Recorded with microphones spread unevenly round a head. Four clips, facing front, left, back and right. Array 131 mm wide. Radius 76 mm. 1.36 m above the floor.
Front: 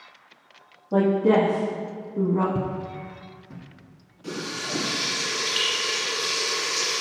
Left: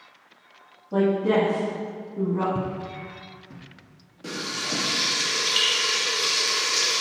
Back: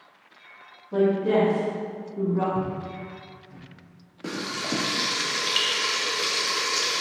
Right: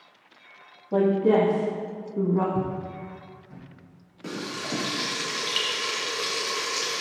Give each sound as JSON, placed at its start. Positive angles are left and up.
{"t": 0.9, "sound": "a woman speaking", "azimuth_deg": -35, "distance_m": 2.5}
{"t": 2.5, "sound": "footsteps", "azimuth_deg": 35, "distance_m": 2.0}
{"t": 4.2, "sound": "frying", "azimuth_deg": 180, "distance_m": 2.5}